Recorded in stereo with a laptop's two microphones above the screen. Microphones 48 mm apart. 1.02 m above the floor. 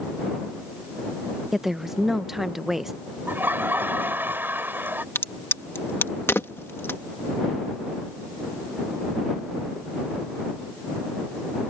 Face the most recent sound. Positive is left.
turn(degrees=60)  # may be behind; listen again after turning